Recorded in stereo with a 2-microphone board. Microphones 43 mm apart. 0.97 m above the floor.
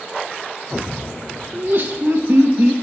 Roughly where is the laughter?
Right.